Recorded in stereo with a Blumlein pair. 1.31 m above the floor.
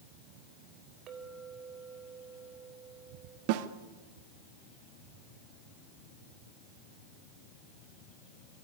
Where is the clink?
30° right, 4 m.